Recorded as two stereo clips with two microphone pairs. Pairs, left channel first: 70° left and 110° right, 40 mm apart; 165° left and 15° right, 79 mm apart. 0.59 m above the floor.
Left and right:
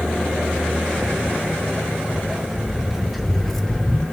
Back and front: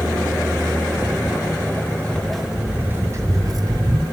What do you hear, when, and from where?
1.0 s footsteps: 160° right, 1.0 m; by 4.0 s 10° right, 1.0 m